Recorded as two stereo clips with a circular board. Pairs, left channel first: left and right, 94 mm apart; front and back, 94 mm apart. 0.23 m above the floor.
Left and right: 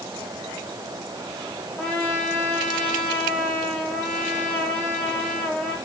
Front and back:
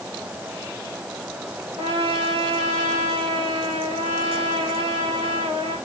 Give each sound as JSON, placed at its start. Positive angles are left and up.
{"t": 1.8, "sound": "a trumpet", "azimuth_deg": 175, "distance_m": 6.5}